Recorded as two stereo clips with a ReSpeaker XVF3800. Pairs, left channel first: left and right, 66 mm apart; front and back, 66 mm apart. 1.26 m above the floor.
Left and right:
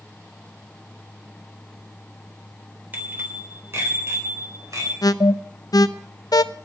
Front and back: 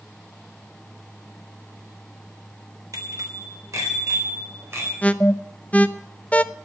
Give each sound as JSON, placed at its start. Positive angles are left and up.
{"t": 2.9, "sound": "a bicycle bell", "azimuth_deg": -150, "distance_m": 3.5}
{"t": 5.0, "sound": "an alarm", "azimuth_deg": 70, "distance_m": 0.6}